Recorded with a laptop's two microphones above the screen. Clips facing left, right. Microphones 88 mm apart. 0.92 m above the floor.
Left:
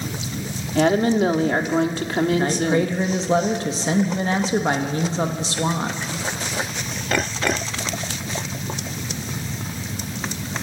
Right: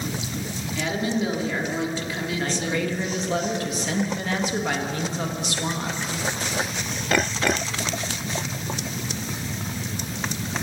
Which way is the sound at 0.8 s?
60° left (ahead or behind).